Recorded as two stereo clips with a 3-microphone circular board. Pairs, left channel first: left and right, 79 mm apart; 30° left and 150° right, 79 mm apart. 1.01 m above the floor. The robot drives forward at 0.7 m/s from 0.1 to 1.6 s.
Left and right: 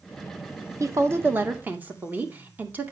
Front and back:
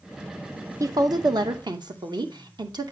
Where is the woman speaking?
125° right, 0.6 m; by 2.9 s 155° right, 1.0 m.